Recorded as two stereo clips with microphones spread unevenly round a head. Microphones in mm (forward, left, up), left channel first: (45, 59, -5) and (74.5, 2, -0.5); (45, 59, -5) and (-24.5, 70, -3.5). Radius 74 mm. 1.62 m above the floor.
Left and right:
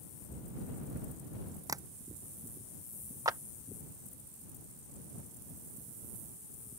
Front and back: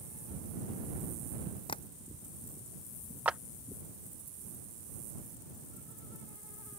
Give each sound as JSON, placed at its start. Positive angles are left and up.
{"t": 1.7, "sound": "tapping", "azimuth_deg": -35}
{"t": 3.2, "sound": "a clap", "azimuth_deg": -110}